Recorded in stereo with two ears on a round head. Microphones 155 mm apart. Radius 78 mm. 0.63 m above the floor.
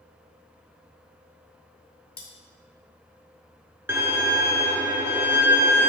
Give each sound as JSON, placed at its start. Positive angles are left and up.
{"t": 2.2, "sound": "cutlery clinking", "side_deg": 15, "distance_m": 2.5}
{"t": 3.9, "sound": "a violin", "side_deg": -15, "distance_m": 0.7}